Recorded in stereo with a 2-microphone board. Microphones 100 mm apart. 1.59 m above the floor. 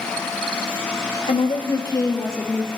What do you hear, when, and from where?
1.3 s a woman speaking: 65° left (ahead or behind), 1.1 m; by 2.7 s 20° left (ahead or behind), 2 m